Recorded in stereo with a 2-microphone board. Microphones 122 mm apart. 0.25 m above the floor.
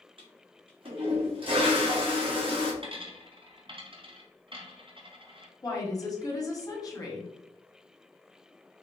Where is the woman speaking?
30° left (ahead or behind), 1.4 m.